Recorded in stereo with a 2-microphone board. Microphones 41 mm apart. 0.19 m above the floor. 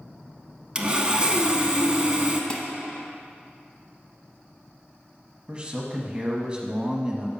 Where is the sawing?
20° right (ahead or behind), 0.7 m.